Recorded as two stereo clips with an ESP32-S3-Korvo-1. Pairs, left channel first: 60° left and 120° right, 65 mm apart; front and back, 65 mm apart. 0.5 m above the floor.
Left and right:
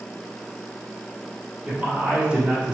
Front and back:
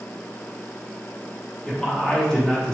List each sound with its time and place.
1.6 s a man speaking: 70° right, 1.0 m